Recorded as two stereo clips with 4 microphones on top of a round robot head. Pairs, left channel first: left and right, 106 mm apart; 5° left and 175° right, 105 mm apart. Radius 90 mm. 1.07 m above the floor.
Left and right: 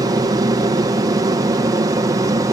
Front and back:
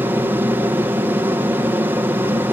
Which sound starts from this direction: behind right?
An aircraft, at 0.0 s.